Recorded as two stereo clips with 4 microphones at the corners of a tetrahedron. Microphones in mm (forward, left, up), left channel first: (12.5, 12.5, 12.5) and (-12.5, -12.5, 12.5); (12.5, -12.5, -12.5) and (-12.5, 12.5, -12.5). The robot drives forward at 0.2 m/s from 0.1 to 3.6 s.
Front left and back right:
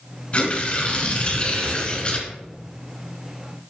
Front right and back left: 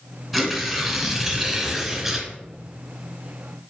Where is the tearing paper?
50° left, 1.9 m; by 2.3 s 70° left, 1.8 m.